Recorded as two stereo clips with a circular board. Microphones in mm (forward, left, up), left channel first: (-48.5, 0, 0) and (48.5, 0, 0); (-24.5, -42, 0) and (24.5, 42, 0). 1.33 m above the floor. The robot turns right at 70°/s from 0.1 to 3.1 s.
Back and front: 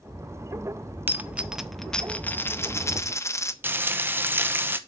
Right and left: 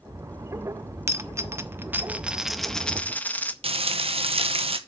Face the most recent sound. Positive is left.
turn(degrees=70)